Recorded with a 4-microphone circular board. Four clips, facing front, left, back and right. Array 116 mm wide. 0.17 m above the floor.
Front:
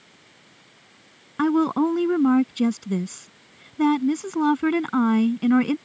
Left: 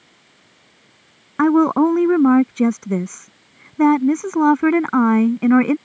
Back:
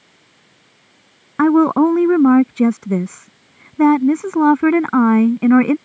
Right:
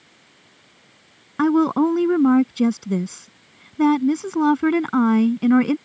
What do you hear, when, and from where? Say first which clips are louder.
1.4 s a woman speaking: left 3 dB, back 8 dB; 150° left